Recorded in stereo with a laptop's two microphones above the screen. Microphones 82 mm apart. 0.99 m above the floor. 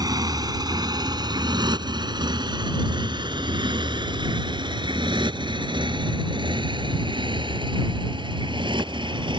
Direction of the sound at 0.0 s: 55° right (ahead or behind).